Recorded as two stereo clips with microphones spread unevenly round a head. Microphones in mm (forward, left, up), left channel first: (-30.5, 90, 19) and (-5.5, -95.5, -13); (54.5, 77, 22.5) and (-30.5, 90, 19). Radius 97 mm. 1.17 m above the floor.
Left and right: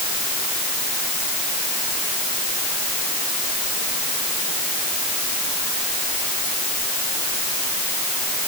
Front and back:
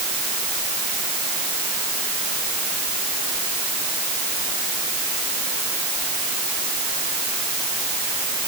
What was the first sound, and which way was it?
Only background noise.